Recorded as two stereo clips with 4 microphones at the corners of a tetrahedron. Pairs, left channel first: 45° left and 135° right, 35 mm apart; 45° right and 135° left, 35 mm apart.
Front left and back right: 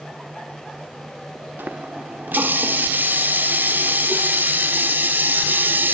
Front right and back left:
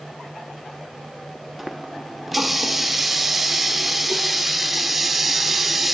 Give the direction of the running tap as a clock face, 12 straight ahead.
5 o'clock.